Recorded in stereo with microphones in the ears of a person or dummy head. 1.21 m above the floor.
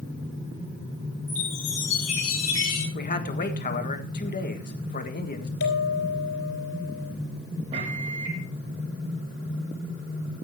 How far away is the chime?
About 8.5 m.